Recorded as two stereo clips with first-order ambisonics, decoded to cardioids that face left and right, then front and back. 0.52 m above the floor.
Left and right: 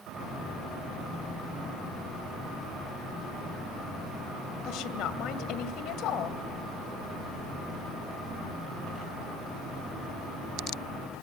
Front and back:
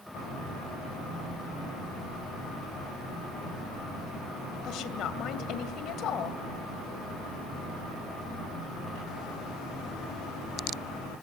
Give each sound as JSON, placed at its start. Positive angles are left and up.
{"t": 4.6, "sound": "a woman speaking", "azimuth_deg": 50, "distance_m": 2.0}